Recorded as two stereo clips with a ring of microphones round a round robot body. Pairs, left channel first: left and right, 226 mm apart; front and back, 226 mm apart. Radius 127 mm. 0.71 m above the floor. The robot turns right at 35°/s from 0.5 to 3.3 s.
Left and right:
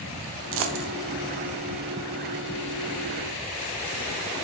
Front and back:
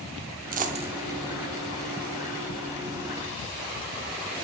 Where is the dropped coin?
125° right, 0.6 m; by 0.9 s 110° right, 0.6 m.